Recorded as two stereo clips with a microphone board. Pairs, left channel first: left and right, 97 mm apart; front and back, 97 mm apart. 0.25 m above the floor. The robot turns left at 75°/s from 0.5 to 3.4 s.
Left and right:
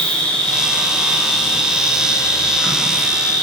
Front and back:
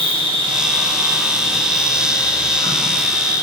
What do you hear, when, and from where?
0.0 s an insect: 170° left, 1.5 m; by 3.4 s 45° right, 1.5 m